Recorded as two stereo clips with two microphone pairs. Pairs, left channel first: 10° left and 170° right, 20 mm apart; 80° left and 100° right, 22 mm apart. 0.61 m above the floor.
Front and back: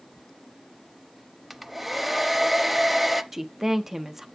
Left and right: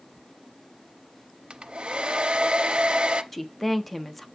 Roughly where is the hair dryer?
Right.